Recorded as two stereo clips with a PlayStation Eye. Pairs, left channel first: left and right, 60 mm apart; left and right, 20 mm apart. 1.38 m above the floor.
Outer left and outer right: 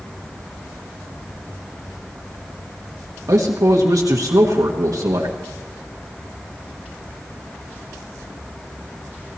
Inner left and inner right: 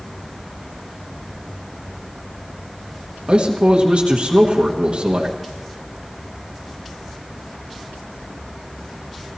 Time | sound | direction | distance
3.3 | a man speaking | 65° right (ahead or behind) | 1.4 m